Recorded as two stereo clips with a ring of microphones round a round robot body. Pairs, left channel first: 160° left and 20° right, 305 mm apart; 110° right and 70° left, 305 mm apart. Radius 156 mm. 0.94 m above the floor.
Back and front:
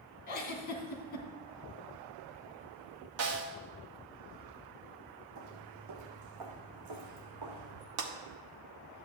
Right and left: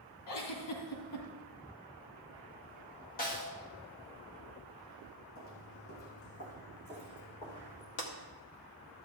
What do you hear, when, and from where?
0.3 s a giggle: 145° right, 1.9 m
3.2 s a snare drum: 55° right, 1.6 m
5.3 s footsteps: 70° right, 2 m; by 7.9 s 30° right, 4 m
8.0 s breaking glass: 60° right, 1.3 m